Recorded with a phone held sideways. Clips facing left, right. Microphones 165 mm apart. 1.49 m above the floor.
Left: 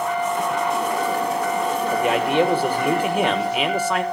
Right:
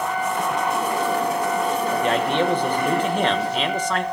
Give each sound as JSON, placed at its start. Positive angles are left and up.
{"t": 1.9, "sound": "a man speaking", "side_deg": 10, "distance_m": 1.4}